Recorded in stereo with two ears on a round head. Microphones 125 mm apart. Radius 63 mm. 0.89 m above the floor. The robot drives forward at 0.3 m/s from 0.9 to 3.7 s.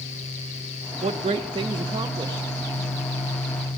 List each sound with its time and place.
1.0 s a woman speaking: 45° right (ahead or behind), 0.5 m; by 2.6 s 30° right (ahead or behind), 0.8 m